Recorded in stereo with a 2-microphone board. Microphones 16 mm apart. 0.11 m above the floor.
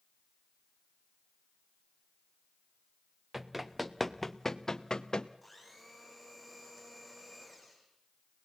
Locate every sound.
3.3 s running footsteps: 10° right (ahead or behind), 1.6 m; by 5.3 s 60° left (ahead or behind), 1.3 m
5.4 s a blender: 5° right (ahead or behind), 6 m